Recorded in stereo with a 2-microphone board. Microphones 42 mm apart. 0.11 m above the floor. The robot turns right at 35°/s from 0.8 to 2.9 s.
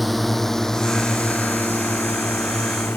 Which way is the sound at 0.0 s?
Centre (ahead or behind).